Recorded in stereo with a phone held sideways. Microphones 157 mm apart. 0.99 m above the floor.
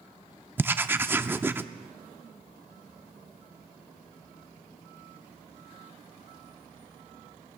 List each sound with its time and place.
0.6 s writing: 15° right (ahead or behind), 0.5 m